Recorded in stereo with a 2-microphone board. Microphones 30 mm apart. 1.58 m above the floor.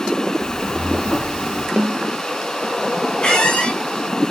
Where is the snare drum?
40° right (ahead or behind), 0.8 m.